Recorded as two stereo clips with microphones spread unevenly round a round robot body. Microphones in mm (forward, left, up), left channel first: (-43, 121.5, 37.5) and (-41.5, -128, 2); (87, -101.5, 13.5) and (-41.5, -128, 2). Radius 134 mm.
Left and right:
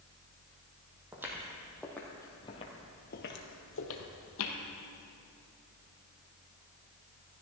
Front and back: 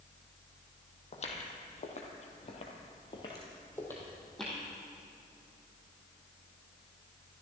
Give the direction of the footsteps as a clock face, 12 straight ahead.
12 o'clock.